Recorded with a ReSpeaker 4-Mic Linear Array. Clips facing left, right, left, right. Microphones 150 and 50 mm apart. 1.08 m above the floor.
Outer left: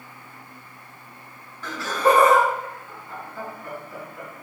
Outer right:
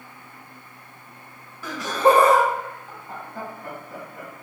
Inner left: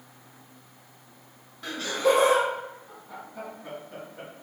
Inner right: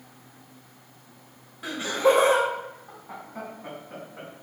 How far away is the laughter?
About 0.8 m.